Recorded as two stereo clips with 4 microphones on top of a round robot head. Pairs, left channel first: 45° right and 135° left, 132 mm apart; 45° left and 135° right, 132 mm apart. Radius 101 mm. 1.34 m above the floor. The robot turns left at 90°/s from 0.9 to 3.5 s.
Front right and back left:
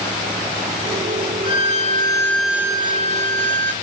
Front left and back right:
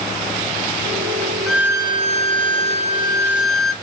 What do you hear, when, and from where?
1.5 s a violin: 45° right, 0.8 m; by 3.7 s 130° left, 0.8 m